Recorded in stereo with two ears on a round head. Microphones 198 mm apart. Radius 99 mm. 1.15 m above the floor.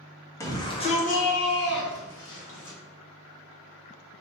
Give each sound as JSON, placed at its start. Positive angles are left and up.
{"t": 0.4, "sound": "a shout", "side_deg": 15, "distance_m": 0.9}